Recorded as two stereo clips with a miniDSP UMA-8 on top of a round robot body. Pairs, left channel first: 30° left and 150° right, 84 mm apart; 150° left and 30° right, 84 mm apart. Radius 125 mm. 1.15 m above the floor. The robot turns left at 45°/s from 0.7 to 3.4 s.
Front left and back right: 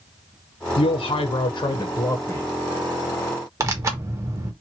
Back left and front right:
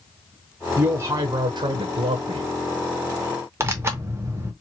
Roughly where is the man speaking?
Ahead left.